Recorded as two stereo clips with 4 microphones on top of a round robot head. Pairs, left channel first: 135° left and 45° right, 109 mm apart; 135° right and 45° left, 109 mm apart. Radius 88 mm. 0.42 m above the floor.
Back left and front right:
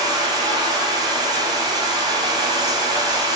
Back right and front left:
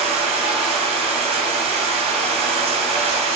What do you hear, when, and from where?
0.0 s running water: 10° left, 1.0 m